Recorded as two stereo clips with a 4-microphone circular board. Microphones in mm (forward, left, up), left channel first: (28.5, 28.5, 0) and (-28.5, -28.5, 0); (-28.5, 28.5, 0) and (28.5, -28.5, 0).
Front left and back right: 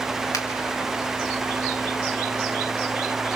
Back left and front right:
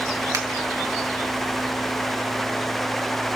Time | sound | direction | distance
0.3 | a finger snap | straight ahead | 1.8 m